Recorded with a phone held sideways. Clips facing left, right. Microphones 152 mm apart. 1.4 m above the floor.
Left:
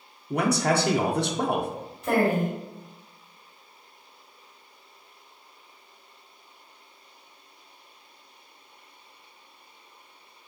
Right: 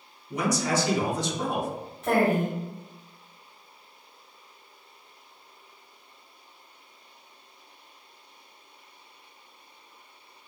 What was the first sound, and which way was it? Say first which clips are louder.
A man speaking: left 3 dB; 60° left (ahead or behind).